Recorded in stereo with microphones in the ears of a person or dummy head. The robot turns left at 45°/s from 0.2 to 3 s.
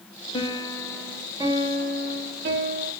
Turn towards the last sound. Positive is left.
turn(degrees=-90)